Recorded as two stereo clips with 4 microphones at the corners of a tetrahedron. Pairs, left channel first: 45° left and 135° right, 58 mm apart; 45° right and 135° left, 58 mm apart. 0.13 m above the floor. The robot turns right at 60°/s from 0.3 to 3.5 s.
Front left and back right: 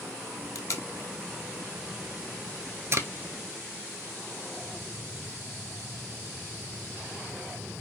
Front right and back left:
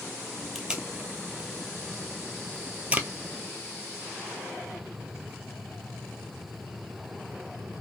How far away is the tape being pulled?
About 0.6 m.